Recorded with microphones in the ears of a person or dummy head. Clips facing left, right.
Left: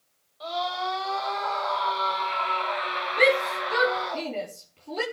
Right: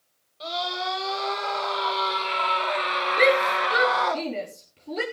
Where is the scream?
35° right (ahead or behind), 6 m; by 4.2 s 75° right (ahead or behind), 2 m.